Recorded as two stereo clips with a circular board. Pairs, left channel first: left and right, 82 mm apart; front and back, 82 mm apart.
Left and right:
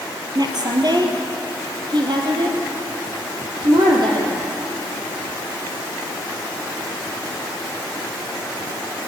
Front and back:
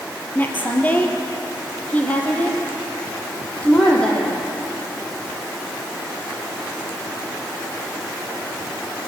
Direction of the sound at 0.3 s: 65° right.